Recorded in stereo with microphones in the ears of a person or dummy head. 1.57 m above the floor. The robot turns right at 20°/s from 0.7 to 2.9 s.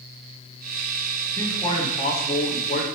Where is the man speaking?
15° left (ahead or behind), 0.9 m; by 2.9 s 45° left (ahead or behind), 0.9 m.